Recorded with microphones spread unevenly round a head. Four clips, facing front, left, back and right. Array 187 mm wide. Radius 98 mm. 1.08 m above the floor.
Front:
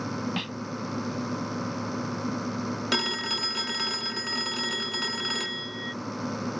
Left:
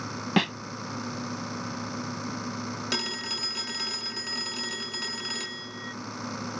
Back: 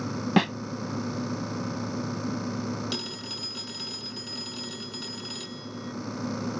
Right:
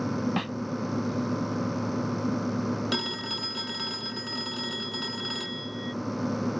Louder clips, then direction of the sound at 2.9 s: Right 2 dB, front 6 dB; 5° left.